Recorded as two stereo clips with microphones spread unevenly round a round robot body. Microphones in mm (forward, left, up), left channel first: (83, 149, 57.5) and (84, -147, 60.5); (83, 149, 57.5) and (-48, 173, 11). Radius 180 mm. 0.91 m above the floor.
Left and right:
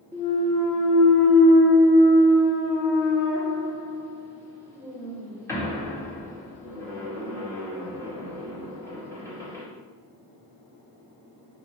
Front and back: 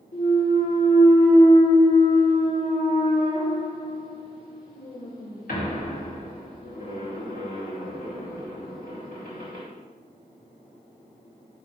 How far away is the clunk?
About 2 m.